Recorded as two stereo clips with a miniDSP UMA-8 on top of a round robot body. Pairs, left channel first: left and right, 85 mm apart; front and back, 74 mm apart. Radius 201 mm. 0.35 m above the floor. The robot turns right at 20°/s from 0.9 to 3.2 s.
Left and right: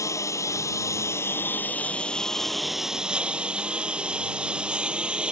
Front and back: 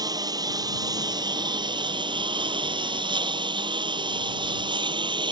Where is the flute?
I don't hear a flute.